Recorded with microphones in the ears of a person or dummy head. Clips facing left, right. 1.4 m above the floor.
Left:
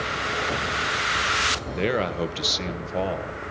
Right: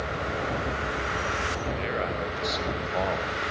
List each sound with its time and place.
1.8 s a man speaking: 60° left (ahead or behind), 1.0 m; by 3.5 s 15° left (ahead or behind), 1.4 m